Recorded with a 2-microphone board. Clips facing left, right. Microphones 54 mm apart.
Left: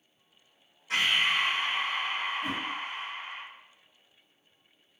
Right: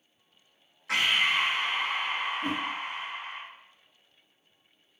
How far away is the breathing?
About 0.7 m.